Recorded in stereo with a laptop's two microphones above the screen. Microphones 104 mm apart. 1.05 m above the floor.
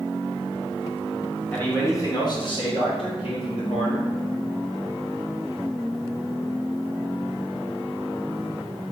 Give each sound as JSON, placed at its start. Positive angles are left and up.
{"t": 1.5, "sound": "a man speaking", "side_deg": 10, "distance_m": 0.7}